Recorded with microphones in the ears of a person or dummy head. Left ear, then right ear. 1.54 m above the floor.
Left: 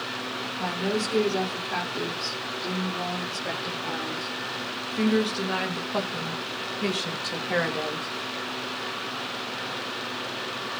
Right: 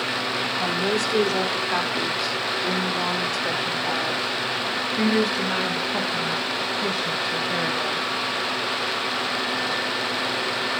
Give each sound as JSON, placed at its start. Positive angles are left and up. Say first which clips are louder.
{"t": 0.6, "sound": "a woman speaking", "louder": "right 2 dB", "side_deg": -30, "distance_m": 4.0}